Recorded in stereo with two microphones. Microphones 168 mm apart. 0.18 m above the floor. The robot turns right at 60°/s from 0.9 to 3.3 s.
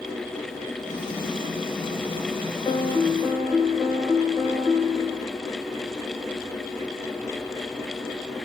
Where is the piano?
155° left, 3.5 m; by 5.3 s 165° right, 3.5 m.